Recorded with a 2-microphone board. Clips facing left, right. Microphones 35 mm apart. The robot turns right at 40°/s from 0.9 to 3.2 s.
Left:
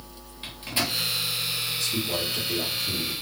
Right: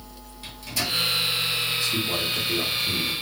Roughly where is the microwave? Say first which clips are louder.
Left 1 dB; left.